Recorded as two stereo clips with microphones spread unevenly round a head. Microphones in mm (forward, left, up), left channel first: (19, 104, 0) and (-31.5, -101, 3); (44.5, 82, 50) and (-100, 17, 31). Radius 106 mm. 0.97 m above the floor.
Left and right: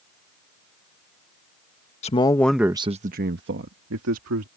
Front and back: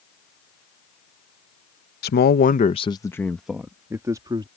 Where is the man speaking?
20° left; by 4.5 s 85° right.